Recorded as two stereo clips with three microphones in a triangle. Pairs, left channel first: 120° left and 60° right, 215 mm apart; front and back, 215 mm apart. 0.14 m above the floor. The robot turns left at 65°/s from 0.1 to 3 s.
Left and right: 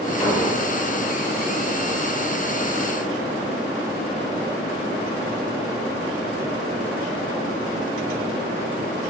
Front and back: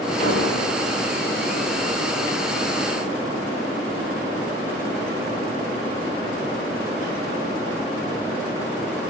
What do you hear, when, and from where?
0.2 s an explosion: 45° left, 8.5 m; by 0.7 s 15° left, 8.5 m